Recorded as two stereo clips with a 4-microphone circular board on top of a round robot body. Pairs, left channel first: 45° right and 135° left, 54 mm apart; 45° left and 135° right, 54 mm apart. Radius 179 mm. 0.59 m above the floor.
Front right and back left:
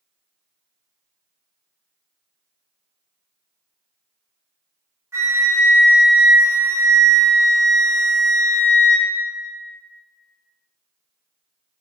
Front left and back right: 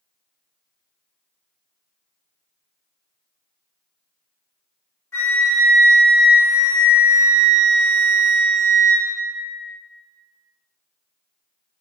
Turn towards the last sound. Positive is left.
turn(degrees=90)